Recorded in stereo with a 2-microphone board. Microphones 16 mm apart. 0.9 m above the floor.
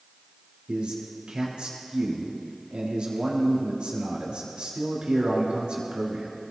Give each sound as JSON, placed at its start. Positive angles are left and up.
{"t": 0.7, "sound": "a man speaking", "side_deg": -70, "distance_m": 6.0}